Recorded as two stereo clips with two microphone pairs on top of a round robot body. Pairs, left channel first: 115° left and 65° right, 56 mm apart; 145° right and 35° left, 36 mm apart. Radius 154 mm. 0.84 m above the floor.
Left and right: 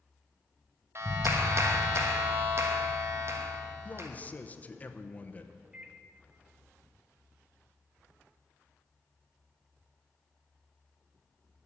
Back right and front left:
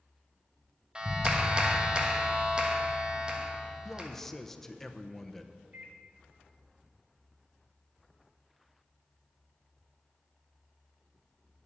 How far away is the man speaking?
About 1.0 m.